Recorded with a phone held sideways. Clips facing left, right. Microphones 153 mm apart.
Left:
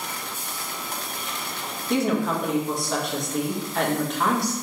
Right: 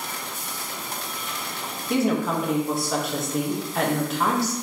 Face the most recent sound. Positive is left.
turn(degrees=-5)  # may be behind; listen again after turning